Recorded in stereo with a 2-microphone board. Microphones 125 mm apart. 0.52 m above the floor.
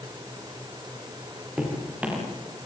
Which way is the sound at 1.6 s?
10° right (ahead or behind).